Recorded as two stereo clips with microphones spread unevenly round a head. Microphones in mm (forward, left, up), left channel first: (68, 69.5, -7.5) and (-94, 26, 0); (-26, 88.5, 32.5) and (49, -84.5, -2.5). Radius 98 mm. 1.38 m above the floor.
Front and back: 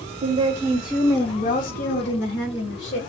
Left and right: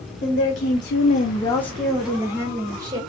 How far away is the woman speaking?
About 0.8 m.